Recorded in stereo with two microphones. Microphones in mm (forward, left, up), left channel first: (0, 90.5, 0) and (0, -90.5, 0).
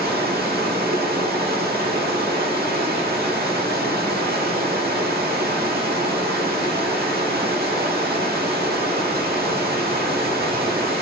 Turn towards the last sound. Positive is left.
turn(degrees=-60)  # may be behind; listen again after turning